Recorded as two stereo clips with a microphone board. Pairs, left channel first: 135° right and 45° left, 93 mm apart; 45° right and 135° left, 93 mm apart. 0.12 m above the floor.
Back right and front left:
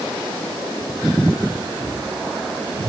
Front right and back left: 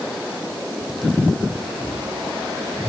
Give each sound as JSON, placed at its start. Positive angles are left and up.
{"t": 1.6, "sound": "whispering", "azimuth_deg": 45, "distance_m": 2.5}